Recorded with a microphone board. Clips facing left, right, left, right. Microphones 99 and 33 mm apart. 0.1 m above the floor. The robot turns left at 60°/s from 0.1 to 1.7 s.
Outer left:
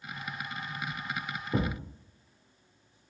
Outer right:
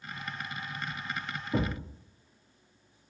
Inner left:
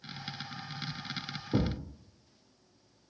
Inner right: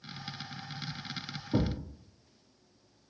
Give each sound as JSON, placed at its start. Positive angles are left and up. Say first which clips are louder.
{"t": 1.5, "sound": "a thud", "louder": "even, even", "side_deg": 15, "distance_m": 1.6}